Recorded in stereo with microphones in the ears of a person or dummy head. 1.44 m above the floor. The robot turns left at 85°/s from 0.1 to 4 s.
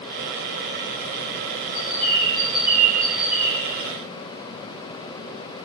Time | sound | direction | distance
1.7 | a bird | 25° left | 2.0 m